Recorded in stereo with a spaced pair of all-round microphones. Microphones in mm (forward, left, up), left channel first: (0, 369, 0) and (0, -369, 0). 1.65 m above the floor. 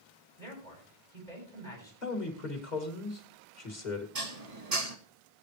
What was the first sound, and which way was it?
A man speaking, 65° right (ahead or behind).